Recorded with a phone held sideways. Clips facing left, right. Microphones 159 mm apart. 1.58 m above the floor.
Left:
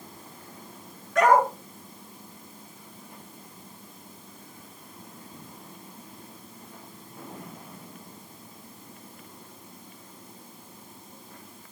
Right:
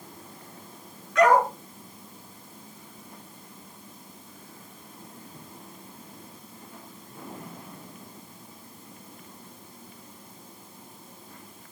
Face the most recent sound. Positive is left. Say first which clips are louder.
# even
turn(degrees=50)  # may be behind; listen again after turning